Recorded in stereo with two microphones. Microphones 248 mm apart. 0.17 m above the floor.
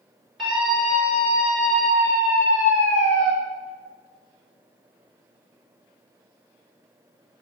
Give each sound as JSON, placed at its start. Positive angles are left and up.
{"t": 0.4, "sound": "a scream", "side_deg": 0, "distance_m": 2.5}